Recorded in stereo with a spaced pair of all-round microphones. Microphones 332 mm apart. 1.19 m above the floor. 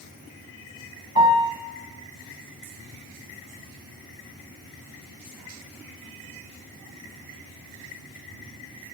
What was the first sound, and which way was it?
A piano, 15° right (ahead or behind).